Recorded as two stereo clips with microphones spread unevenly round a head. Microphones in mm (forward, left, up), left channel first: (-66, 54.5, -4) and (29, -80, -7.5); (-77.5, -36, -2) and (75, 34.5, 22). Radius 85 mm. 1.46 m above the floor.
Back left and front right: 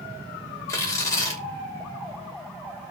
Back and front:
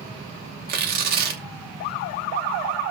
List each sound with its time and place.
0.7 s tearing paper: 50° left, 1.1 m